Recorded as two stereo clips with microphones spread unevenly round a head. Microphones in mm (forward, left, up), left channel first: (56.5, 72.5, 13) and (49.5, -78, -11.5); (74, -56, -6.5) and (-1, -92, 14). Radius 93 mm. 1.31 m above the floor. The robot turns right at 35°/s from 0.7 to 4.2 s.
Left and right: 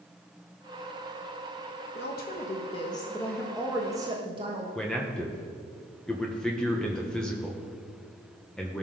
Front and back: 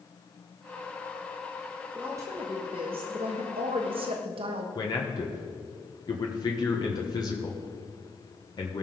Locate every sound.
1.9 s a woman speaking: 125° left, 1.2 m; by 4.7 s 160° right, 1.2 m
4.8 s a man speaking: straight ahead, 1.3 m